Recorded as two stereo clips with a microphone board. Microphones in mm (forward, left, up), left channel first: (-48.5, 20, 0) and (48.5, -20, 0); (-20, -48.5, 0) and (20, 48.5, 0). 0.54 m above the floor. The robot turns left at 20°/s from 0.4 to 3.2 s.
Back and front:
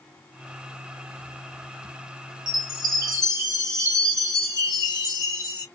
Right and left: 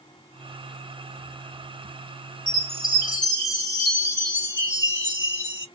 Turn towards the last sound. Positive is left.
turn(degrees=-70)